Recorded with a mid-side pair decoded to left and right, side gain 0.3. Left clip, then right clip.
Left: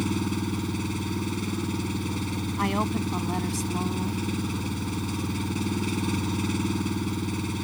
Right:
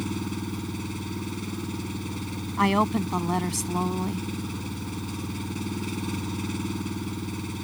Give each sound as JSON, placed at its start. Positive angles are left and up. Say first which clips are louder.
{"t": 0.0, "sound": "an engine running", "louder": "left 3 dB", "azimuth_deg": 35}
{"t": 2.6, "sound": "a woman speaking", "louder": "right 5 dB", "azimuth_deg": -55}